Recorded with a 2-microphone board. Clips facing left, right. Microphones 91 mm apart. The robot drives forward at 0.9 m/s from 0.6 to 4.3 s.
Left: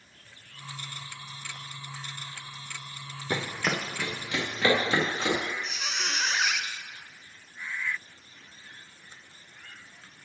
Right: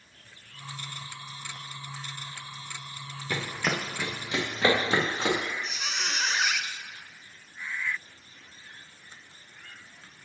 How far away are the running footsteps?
About 0.9 m.